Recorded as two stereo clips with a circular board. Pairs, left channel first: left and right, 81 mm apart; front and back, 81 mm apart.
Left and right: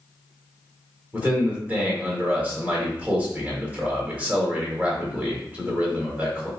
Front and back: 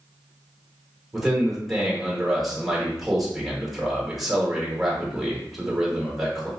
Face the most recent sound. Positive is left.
turn(degrees=-95)